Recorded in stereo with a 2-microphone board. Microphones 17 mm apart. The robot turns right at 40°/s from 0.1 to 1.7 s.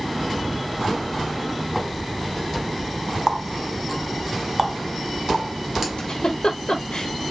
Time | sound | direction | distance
3.3 | a running tap | 25° right (ahead or behind) | 1.1 m
6.0 | a giggle | 70° left (ahead or behind) | 0.8 m